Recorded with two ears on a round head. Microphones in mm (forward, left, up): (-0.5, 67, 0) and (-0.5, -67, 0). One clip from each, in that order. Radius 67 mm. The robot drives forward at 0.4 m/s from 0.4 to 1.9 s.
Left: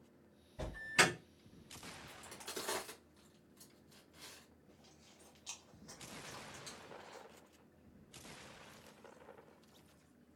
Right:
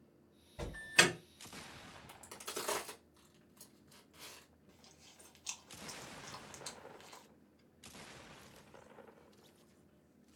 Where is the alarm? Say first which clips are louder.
Right 2 dB; 25° right (ahead or behind), 1.4 m.